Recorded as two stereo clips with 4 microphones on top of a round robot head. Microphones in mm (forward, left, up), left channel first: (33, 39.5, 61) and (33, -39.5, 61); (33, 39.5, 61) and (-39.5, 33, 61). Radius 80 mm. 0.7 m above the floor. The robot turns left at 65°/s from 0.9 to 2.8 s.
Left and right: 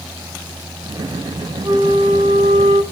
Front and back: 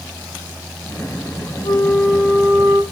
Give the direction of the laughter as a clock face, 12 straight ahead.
I don't hear laughter.